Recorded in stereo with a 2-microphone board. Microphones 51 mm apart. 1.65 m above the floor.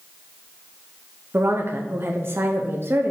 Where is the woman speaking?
45° right (ahead or behind), 0.9 m.